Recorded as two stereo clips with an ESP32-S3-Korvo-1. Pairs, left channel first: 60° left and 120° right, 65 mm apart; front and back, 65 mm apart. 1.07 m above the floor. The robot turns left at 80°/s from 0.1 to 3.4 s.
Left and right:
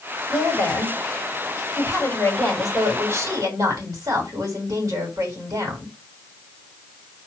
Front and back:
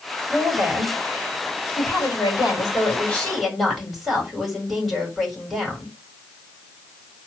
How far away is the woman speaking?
About 4 m.